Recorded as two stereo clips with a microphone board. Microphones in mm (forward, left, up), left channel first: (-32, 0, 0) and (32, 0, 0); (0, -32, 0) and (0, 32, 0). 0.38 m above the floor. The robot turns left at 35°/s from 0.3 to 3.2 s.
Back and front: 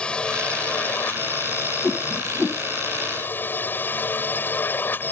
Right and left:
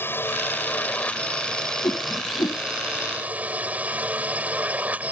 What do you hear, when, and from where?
0.0 s a drone: 115° right; by 5.1 s 145° left
1.8 s a whoosh: 80° right; by 2.6 s 110° right